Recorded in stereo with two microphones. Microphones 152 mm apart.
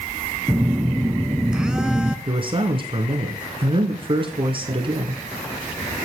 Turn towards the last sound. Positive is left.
turn(degrees=-35)  # may be behind; listen again after turning